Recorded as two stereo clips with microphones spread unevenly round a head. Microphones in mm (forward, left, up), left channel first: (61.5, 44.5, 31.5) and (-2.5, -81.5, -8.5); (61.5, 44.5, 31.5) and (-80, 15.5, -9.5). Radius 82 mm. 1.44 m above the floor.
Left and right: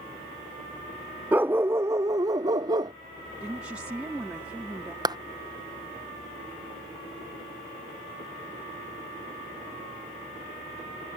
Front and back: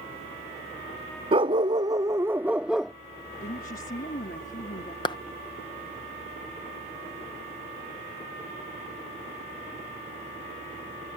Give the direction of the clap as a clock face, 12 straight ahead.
2 o'clock.